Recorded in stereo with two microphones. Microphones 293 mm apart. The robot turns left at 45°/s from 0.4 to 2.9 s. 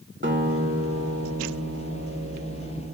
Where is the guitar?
40° right, 2.0 m; by 2.9 s 155° right, 2.0 m.